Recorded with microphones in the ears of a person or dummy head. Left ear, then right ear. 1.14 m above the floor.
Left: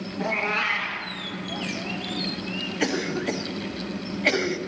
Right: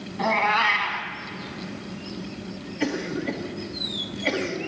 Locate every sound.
0.2 s a cat meowing: 70° right (ahead or behind), 2 m
2.8 s a cough: 25° left (ahead or behind), 1.5 m